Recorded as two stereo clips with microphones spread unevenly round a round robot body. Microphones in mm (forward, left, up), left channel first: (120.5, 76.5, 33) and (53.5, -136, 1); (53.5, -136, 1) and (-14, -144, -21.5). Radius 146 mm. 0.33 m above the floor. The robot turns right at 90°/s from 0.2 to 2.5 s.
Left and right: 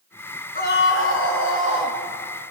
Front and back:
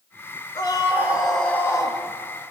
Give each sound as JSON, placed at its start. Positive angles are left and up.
{"t": 0.6, "sound": "a scream", "azimuth_deg": 20, "distance_m": 5.0}